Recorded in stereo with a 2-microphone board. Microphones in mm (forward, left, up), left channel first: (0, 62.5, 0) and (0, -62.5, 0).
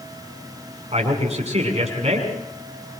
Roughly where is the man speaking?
Right.